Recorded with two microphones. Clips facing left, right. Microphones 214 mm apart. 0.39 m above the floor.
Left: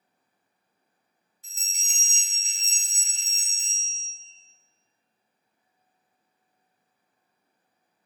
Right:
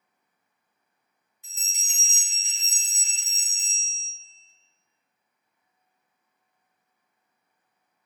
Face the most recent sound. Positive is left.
turn(degrees=40)  # may be behind; listen again after turning